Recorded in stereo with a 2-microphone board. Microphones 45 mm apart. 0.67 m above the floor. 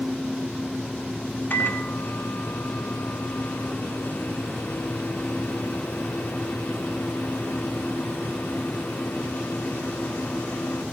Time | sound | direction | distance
1.5 | a microwave | 50° left (ahead or behind) | 1.6 m